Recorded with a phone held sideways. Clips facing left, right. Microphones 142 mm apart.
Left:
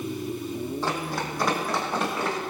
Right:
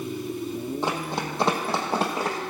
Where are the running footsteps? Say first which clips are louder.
Right 1 dB; 20° right (ahead or behind), 2.5 m; by 2.4 s 40° right (ahead or behind), 3 m.